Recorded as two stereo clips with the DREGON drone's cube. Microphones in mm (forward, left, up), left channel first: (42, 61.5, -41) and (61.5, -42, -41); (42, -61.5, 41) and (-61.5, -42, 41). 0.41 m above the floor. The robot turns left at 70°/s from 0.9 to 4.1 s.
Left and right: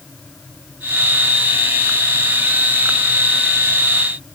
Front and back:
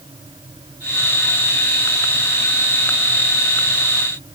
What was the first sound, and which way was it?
Only background noise.